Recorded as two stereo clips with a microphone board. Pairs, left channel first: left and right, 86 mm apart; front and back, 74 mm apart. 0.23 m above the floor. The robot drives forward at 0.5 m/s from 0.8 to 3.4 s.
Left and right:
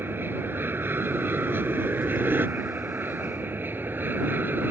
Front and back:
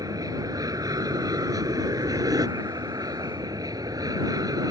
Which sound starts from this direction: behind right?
An aircraft, at 0.0 s.